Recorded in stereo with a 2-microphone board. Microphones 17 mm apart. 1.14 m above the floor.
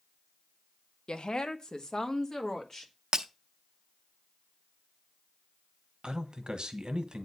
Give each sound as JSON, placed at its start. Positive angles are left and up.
{"t": 1.1, "sound": "a woman speaking", "side_deg": 65, "distance_m": 0.8}
{"t": 3.1, "sound": "breaking glass", "side_deg": -40, "distance_m": 0.7}
{"t": 6.0, "sound": "a man speaking", "side_deg": -60, "distance_m": 1.4}